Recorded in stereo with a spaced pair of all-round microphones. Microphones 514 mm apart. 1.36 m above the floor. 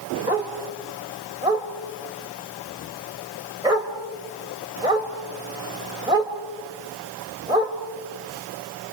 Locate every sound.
0.3 s a dog barking: 10° right (ahead or behind), 2.5 m